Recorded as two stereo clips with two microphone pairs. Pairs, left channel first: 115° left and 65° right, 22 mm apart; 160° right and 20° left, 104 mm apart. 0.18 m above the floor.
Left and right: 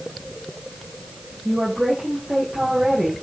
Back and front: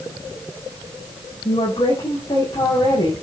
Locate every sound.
1.4 s a woman speaking: 115° right, 7 m